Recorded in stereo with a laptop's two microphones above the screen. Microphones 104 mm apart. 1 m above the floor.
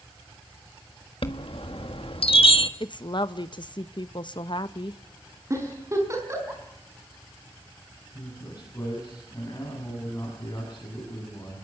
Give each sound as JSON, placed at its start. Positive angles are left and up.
{"t": 1.2, "sound": "a chime", "side_deg": 60, "distance_m": 1.6}
{"t": 2.8, "sound": "a woman speaking", "side_deg": 50, "distance_m": 0.6}
{"t": 5.5, "sound": "a giggle", "side_deg": -30, "distance_m": 4.5}
{"t": 8.1, "sound": "a man speaking", "side_deg": 30, "distance_m": 8.0}